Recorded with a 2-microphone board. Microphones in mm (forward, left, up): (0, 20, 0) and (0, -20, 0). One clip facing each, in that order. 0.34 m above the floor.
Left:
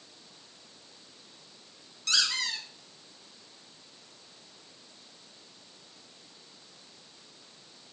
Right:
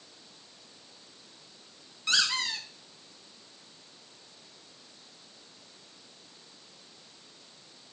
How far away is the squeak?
About 1.7 m.